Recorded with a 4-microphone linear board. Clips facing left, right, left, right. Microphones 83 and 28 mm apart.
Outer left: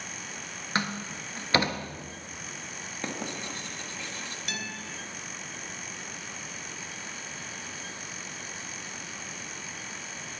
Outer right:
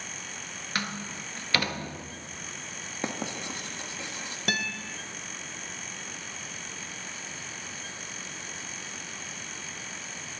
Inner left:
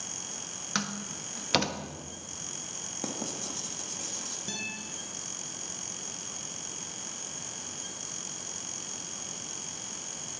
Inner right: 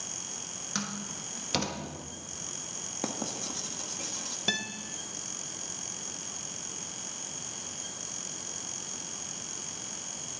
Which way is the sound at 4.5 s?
60° right (ahead or behind).